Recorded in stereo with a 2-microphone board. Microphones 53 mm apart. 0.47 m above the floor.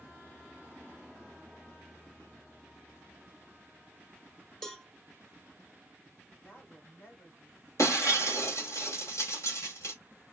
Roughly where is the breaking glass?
Left.